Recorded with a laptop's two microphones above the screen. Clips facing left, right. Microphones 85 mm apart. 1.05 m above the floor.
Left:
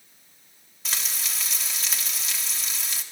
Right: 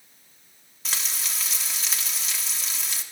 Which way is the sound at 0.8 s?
Centre (ahead or behind).